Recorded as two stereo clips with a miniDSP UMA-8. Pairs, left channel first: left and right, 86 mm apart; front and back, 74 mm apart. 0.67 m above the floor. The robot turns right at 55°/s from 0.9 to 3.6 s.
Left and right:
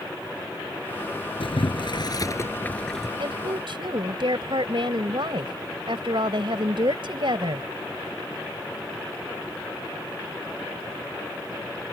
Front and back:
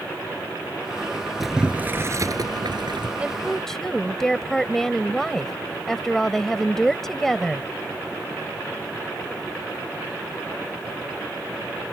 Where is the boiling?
90° left; by 3.1 s 175° right.